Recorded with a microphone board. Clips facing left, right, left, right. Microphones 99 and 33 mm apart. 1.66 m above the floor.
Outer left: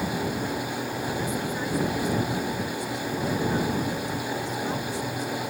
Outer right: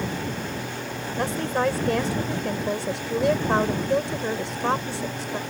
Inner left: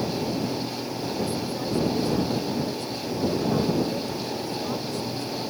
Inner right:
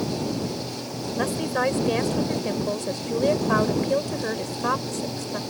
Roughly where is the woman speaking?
Right.